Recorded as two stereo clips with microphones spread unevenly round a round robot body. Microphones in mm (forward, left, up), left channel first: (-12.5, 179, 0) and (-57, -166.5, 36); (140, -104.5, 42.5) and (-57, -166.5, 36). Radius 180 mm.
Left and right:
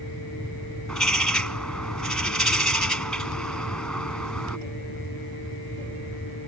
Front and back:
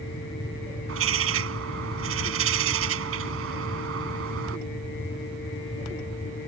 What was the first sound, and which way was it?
A bird, 170° left.